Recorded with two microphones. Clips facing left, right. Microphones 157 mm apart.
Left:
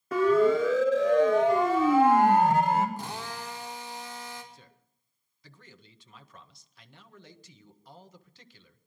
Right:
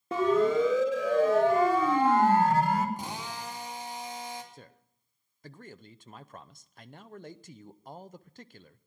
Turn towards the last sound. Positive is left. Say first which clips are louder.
# right 4 dB
turn(degrees=-50)  # may be behind; listen again after turning